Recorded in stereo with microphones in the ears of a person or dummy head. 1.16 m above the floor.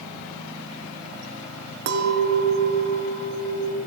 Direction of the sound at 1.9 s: 65° right (ahead or behind).